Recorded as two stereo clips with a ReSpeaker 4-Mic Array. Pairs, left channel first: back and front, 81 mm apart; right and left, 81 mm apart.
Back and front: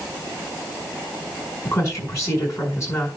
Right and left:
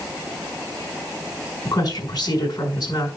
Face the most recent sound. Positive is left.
turn(degrees=-130)